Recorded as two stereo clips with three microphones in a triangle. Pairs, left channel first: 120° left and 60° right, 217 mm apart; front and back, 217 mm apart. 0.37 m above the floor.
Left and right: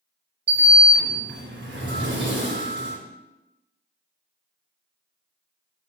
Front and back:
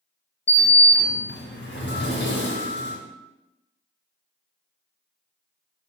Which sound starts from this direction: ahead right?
A sliding door, at 0.5 s.